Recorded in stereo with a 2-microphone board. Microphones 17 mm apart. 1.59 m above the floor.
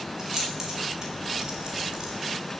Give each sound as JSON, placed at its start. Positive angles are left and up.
{"t": 0.2, "sound": "keys jangling", "side_deg": -25, "distance_m": 5.0}